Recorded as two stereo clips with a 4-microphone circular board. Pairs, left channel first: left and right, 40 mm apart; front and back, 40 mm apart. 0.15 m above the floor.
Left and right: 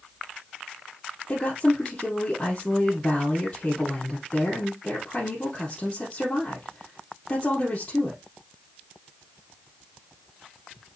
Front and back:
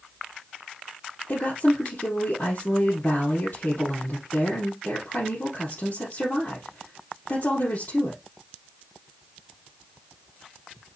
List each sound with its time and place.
1.3 s a woman speaking: 35° left, 3.5 m